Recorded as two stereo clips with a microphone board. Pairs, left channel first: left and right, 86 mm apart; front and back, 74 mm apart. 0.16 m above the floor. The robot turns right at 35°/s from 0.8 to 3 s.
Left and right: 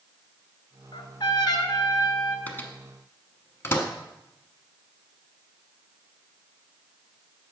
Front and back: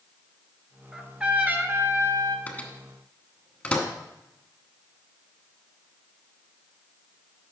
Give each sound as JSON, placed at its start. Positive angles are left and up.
{"t": 0.9, "sound": "a trumpet", "azimuth_deg": 95, "distance_m": 0.8}
{"t": 2.5, "sound": "a microwave", "azimuth_deg": 45, "distance_m": 1.1}